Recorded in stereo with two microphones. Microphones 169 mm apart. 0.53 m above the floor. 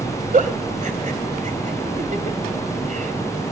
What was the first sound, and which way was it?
A giggle, 55° right (ahead or behind).